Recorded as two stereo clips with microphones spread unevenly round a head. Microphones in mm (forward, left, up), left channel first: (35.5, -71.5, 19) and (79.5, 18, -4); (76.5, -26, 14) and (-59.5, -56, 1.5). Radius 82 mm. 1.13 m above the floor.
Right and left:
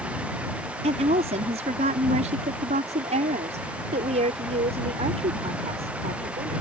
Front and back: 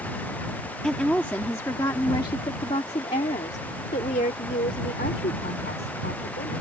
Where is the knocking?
I don't hear knocking.